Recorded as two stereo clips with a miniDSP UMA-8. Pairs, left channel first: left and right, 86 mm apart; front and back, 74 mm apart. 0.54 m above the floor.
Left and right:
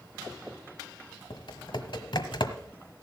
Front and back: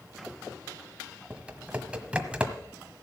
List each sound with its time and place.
1.3 s typing on a keyboard: 105° left, 1.2 m